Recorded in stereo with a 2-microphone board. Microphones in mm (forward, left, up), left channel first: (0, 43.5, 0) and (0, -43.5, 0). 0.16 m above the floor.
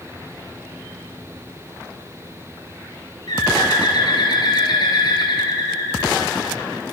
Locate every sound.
3.3 s a bird: 55° left (ahead or behind), 2 m